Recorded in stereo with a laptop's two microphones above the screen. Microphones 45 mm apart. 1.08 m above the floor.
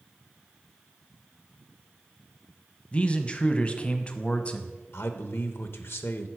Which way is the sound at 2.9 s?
25° left (ahead or behind).